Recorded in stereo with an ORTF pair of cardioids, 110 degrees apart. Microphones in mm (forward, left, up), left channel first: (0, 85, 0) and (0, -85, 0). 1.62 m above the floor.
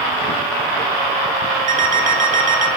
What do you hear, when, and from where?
1.7 s an alarm clock: 50° right, 2.5 m